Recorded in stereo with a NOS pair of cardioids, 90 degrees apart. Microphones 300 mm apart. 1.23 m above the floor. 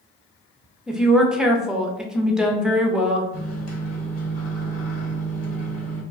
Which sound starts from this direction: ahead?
A woman speaking, at 0.9 s.